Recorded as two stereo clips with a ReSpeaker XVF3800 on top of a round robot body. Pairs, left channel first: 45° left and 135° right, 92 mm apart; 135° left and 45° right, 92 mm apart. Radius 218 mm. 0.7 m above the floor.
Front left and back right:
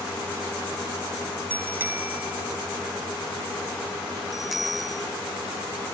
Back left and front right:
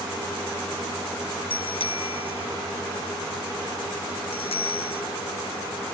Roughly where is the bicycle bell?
Behind left.